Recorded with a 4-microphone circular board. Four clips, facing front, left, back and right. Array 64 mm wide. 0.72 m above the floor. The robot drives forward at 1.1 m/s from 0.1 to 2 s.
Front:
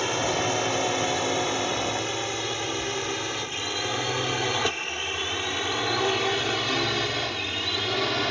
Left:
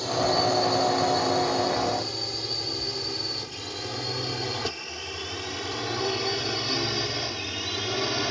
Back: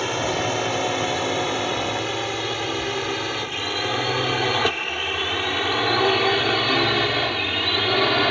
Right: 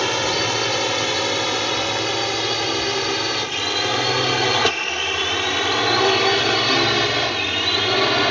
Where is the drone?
100° right; by 8.3 s 125° right.